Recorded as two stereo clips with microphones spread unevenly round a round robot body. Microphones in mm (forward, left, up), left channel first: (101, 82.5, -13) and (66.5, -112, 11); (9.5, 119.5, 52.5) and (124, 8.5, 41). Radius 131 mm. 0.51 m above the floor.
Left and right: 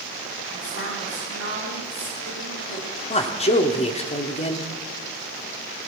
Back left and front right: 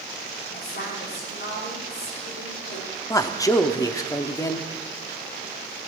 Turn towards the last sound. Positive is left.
turn(degrees=75)